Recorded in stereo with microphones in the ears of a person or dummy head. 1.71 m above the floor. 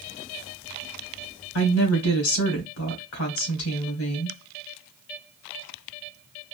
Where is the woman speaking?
80° left, 1.9 m.